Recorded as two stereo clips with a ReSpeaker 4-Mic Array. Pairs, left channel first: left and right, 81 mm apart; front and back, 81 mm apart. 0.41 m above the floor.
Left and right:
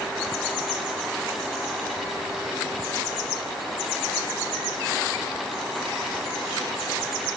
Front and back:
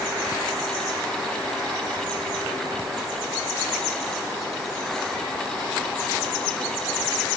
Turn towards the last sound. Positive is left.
No sound to turn to.